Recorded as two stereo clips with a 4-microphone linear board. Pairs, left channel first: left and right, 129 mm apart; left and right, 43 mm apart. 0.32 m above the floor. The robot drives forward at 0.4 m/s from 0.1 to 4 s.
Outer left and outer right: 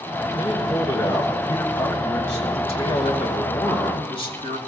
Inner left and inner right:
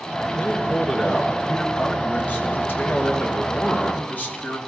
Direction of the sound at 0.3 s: 35° left (ahead or behind).